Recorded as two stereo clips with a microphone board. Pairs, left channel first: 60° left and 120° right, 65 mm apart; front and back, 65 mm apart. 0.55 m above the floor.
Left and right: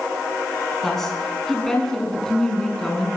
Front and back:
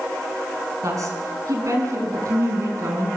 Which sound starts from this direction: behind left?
A woman speaking, at 0.8 s.